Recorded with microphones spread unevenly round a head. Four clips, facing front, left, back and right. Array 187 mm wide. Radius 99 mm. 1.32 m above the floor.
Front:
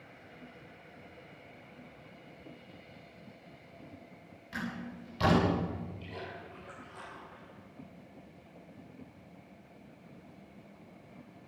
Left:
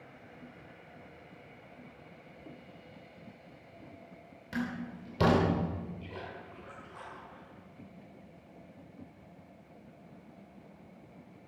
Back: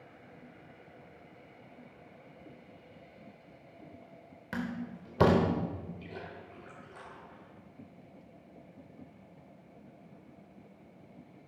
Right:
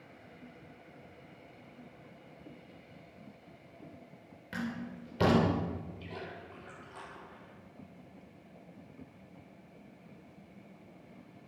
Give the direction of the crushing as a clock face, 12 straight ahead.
No crushing in this recording.